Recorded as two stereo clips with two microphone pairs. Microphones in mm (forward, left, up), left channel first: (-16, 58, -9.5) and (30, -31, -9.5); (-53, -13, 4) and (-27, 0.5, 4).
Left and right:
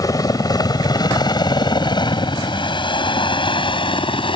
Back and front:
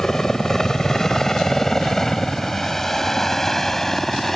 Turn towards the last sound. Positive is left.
turn(degrees=125)